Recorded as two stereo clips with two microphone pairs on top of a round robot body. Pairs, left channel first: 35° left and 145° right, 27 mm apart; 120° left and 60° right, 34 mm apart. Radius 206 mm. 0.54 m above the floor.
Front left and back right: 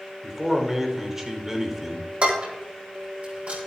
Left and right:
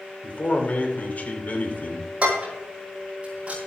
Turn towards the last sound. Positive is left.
turn(degrees=-115)